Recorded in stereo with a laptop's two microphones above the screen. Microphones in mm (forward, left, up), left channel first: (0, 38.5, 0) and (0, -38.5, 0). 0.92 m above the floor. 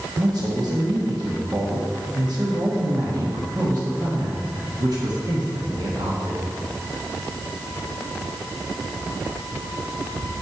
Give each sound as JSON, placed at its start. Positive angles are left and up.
{"t": 0.2, "sound": "a man speaking", "side_deg": -60, "distance_m": 1.3}